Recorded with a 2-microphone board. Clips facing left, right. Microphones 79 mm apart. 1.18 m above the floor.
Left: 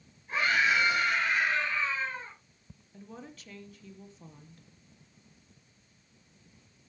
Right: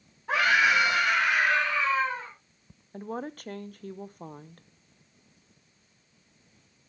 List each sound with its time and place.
0.3 s a scream: 75° right (ahead or behind), 5.5 m
2.9 s a woman speaking: 50° right (ahead or behind), 0.8 m